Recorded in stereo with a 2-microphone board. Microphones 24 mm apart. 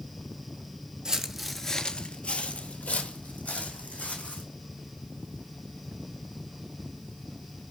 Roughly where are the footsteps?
Right.